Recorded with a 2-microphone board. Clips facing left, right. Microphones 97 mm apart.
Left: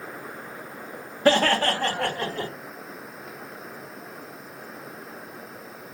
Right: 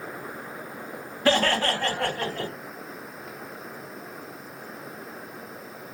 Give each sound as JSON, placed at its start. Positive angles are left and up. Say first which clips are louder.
{"t": 1.2, "sound": "laughter", "louder": "left 3 dB", "side_deg": 35, "distance_m": 1.5}